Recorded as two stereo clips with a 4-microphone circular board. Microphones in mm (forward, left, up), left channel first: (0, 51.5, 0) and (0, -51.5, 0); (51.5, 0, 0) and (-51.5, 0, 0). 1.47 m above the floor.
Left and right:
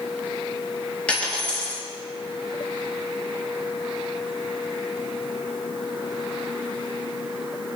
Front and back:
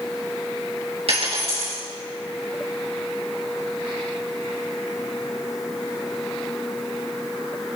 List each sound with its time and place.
1.1 s a dropped coin: 165° left, 5 m